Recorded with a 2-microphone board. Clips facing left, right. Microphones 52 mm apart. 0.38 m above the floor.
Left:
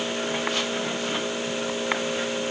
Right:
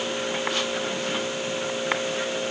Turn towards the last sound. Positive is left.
No sound to turn to.